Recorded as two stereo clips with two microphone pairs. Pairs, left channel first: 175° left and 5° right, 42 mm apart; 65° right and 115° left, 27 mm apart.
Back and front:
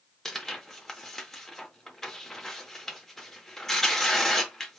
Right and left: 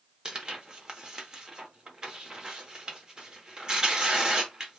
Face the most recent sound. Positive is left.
turn(degrees=105)